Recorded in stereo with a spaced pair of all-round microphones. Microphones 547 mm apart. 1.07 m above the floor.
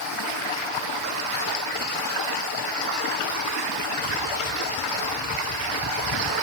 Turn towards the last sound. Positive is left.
No sound to turn to.